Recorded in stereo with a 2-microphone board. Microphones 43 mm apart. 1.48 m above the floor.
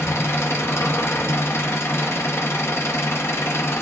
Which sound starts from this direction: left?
An engine running, at 0.0 s.